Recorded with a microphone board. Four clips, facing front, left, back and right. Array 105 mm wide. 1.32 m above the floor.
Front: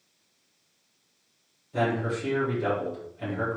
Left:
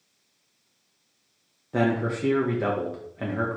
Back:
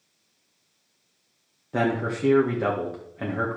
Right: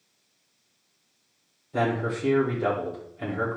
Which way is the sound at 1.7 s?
135° left.